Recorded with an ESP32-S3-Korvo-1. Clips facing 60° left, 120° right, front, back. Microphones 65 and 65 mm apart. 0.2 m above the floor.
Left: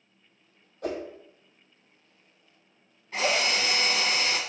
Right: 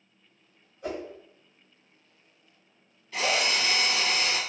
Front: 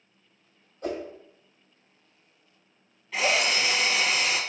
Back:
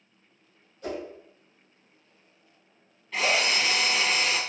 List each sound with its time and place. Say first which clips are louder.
0.8 s a whoosh: left 2 dB, front 2 dB; 45° left, 1.3 m
3.1 s a drill: left 1 dB, even; 85° left, 0.9 m